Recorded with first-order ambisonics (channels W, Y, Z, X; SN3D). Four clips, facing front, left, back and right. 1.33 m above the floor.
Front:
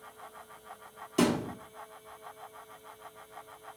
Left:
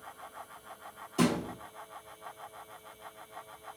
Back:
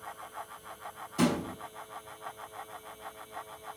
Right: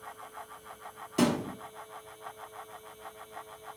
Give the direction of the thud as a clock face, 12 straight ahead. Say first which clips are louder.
Right 1 dB, front 1 dB; 1 o'clock.